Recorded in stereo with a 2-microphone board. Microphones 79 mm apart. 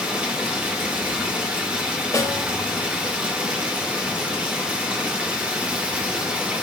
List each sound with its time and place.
0.0 s running water: 15° right (ahead or behind), 2 m
2.1 s a snare drum: 40° left (ahead or behind), 2.5 m